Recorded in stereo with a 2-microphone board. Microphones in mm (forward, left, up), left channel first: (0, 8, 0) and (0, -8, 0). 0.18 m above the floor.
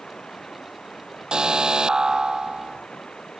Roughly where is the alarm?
Right.